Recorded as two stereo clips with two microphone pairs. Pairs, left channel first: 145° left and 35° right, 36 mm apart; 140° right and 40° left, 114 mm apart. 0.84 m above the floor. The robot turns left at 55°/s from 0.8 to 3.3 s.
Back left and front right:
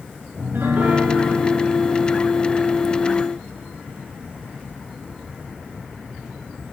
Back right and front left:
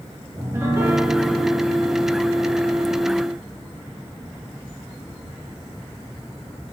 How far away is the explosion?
No explosion in this recording.